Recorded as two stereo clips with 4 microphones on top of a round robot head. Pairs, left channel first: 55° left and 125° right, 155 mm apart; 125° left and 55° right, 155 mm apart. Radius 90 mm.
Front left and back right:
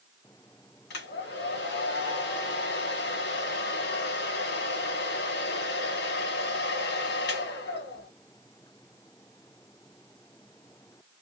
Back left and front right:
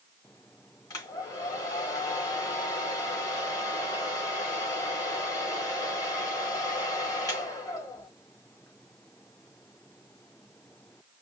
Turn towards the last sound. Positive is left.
turn(degrees=55)